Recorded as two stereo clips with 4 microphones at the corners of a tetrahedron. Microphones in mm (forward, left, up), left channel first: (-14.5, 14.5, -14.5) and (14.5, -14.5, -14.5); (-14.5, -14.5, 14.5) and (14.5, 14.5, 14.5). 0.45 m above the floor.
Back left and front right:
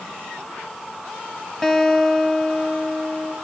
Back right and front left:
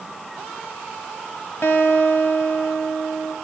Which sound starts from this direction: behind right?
A guitar, at 1.6 s.